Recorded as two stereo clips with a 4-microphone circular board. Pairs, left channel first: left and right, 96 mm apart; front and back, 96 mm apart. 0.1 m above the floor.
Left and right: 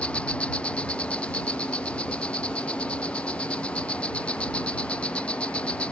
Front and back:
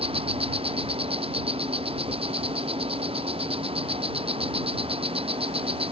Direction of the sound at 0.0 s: 170° left.